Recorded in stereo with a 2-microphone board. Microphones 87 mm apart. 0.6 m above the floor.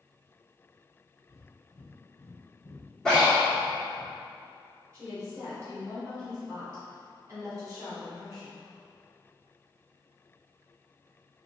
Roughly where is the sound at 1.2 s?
Left.